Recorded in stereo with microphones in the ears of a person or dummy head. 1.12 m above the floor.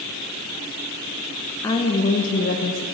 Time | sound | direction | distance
1.6 | a woman speaking | 15° left (ahead or behind) | 1.1 m